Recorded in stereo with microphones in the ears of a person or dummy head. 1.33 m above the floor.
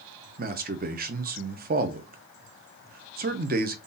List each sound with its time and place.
0.4 s a man speaking: 40° right (ahead or behind), 0.5 m